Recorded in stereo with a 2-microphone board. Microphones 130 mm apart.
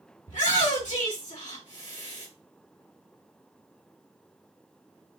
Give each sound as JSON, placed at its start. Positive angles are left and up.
{"t": 0.3, "sound": "a shout", "side_deg": 75, "distance_m": 3.0}